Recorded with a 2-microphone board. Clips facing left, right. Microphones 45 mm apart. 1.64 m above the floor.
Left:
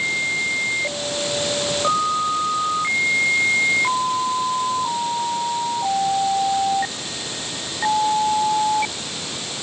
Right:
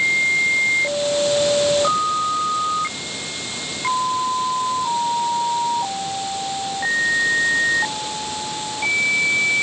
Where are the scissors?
I don't hear scissors.